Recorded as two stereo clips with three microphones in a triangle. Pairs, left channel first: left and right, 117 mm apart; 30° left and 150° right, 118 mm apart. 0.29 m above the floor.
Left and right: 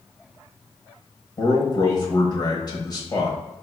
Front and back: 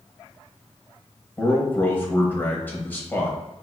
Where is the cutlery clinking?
No cutlery clinking in this recording.